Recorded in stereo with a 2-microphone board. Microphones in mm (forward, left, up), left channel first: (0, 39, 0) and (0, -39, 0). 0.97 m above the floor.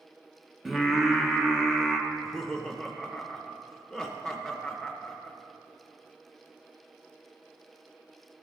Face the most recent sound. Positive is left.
turn(degrees=5)  # may be behind; listen again after turning